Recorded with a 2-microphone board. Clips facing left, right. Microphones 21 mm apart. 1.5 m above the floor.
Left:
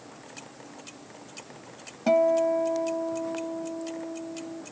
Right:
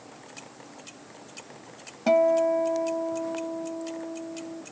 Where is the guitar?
10° right (ahead or behind).